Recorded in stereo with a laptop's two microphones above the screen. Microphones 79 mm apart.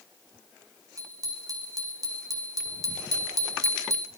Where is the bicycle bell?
50° right (ahead or behind), 5.5 m; by 4.1 s 45° right (ahead or behind), 1.5 m.